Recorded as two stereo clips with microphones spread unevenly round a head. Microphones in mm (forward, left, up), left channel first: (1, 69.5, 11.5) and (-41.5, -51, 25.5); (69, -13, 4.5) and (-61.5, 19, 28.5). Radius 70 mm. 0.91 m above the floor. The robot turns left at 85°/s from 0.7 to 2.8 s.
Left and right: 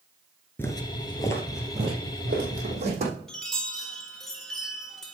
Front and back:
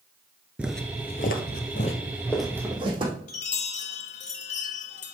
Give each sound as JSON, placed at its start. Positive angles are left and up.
{"t": 0.6, "sound": "footsteps", "azimuth_deg": 140, "distance_m": 0.9}
{"t": 3.3, "sound": "a chime", "azimuth_deg": -15, "distance_m": 1.5}